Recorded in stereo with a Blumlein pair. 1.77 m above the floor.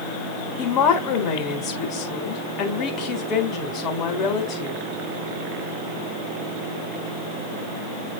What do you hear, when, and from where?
0.6 s a woman speaking: 35° left, 3.5 m